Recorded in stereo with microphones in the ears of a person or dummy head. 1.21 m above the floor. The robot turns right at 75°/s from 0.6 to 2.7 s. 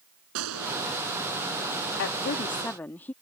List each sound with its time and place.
0.3 s a gunshot: 85° right; by 0.8 s 70° right (ahead or behind)
2.0 s a woman speaking: 115° left; by 3.1 s 170° left